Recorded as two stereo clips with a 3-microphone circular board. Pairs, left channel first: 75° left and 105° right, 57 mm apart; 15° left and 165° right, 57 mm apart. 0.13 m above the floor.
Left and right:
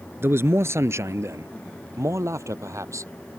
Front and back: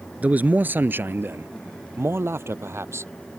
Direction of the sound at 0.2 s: 110° right.